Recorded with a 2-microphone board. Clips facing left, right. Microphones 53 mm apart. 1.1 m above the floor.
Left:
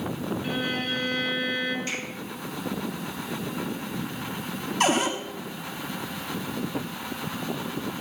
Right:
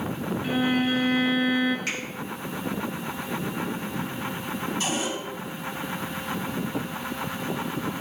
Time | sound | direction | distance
0.4 | a violin | 15° right (ahead or behind) | 1.6 m
1.9 | a finger snap | 80° right | 4.5 m
4.8 | a cupboard door | 65° left (ahead or behind) | 1.2 m